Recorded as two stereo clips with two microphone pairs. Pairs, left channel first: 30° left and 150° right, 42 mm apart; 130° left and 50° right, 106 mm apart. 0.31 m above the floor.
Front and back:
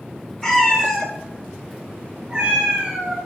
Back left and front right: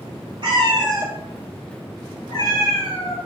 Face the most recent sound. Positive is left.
turn(degrees=155)